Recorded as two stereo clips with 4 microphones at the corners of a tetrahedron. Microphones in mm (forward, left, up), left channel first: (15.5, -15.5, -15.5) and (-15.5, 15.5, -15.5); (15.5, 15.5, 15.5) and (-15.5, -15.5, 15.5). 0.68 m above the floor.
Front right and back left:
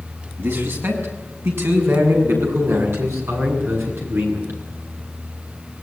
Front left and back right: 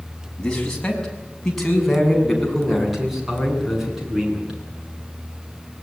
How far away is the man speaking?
About 7 m.